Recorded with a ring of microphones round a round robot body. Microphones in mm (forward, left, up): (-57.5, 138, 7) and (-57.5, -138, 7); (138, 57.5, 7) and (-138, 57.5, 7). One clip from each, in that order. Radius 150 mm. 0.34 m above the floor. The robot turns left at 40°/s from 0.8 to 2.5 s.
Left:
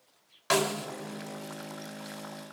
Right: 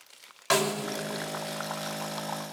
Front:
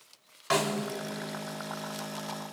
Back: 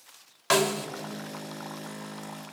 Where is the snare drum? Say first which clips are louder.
Right 1 dB, back 4 dB; 175° right, 1.6 m.